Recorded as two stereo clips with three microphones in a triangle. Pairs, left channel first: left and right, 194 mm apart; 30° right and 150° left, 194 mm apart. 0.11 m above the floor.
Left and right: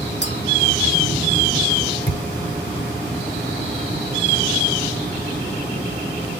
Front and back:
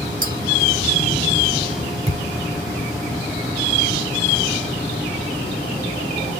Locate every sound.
0.2 s a clink: 110° left, 2.5 m
2.1 s a thud: 90° left, 4 m